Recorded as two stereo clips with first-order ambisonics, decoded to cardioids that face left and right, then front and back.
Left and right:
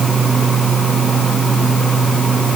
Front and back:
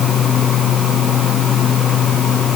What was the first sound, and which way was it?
Only background noise.